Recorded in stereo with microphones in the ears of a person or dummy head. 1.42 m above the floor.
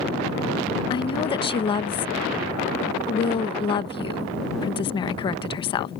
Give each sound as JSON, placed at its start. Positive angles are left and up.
{"t": 0.9, "sound": "a woman speaking", "side_deg": 30}